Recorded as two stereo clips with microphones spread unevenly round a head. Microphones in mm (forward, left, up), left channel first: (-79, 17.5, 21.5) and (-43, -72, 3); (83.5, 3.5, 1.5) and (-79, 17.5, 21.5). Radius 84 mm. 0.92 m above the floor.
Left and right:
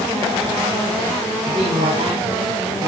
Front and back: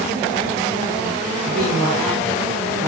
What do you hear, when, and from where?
1.4 s a man speaking: 85° right, 6.5 m; by 2.9 s 95° right, 6.5 m